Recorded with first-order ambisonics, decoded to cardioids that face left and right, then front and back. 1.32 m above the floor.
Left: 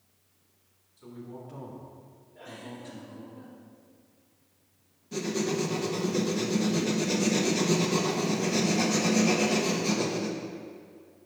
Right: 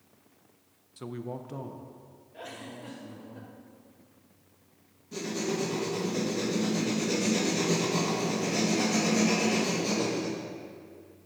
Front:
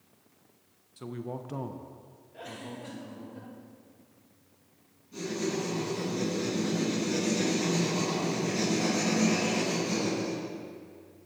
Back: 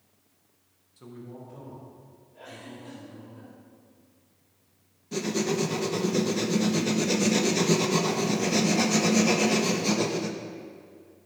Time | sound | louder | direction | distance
1.0 | a man speaking | right 6 dB, front 6 dB | 70° right | 0.7 m
2.3 | a giggle | right 1 dB, front 2 dB | 55° right | 2 m
5.1 | writing | left 2 dB, back 5 dB | 165° left | 1.0 m